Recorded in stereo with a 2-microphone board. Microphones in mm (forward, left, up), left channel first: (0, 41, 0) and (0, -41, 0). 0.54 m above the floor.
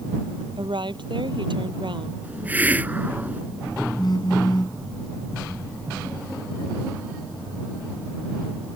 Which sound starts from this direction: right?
A woman speaking, at 0.6 s.